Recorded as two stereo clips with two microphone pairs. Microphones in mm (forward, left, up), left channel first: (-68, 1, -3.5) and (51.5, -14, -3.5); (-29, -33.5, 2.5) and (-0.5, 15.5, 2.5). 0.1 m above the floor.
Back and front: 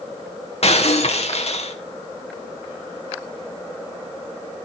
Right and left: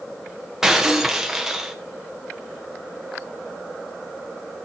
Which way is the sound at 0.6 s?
145° left.